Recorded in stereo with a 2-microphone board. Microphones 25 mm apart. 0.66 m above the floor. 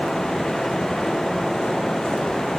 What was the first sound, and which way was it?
Only background noise.